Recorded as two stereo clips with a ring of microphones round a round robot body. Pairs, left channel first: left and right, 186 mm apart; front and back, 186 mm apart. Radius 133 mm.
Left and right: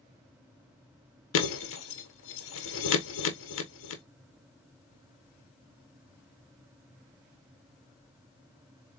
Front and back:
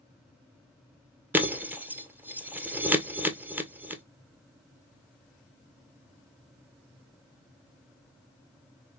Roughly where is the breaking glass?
Left.